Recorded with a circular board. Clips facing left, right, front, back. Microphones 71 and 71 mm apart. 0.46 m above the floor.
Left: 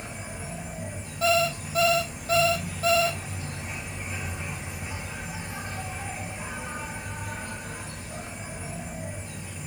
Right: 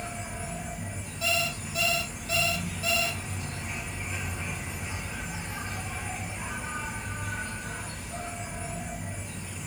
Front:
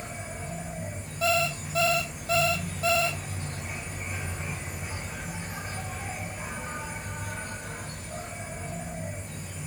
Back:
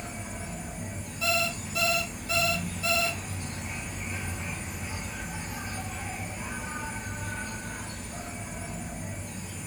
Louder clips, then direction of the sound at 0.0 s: Right 1 dB, front 1 dB; 25° left.